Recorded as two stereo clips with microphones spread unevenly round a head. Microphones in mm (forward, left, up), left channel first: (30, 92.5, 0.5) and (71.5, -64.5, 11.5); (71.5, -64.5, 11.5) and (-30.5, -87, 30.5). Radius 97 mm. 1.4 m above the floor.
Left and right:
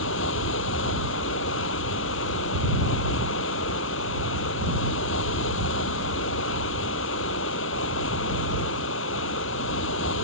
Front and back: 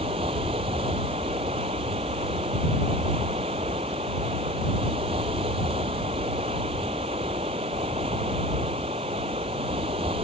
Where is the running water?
130° left.